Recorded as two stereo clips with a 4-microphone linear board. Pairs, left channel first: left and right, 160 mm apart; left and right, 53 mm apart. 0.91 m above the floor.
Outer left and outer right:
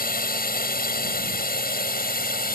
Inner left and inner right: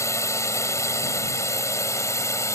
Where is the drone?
75° left (ahead or behind); by 2.6 s 80° left.